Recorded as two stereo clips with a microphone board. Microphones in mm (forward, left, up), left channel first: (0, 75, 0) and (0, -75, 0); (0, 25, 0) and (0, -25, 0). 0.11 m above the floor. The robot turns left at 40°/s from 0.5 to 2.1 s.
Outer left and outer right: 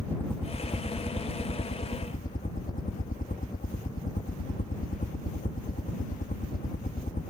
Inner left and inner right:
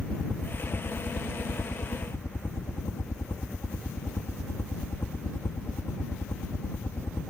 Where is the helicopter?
165° left; by 7.3 s 100° left.